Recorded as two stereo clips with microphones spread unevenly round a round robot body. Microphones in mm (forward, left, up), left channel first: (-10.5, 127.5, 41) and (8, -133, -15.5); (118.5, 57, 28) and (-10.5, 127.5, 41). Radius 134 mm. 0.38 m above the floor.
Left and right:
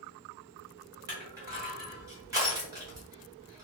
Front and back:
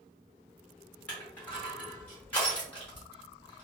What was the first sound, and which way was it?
Crushing, 80° right.